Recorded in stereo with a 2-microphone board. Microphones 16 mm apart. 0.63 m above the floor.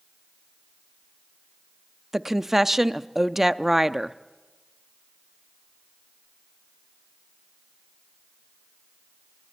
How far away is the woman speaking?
About 0.6 m.